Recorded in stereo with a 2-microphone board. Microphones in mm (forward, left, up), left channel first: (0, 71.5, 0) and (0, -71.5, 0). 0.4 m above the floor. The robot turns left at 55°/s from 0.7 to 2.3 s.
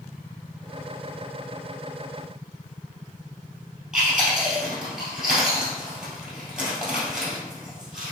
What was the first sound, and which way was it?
Chewing, 5° right (ahead or behind).